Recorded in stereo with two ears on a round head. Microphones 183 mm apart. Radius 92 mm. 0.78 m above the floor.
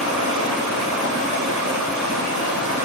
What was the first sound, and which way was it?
Running water, 70° right (ahead or behind).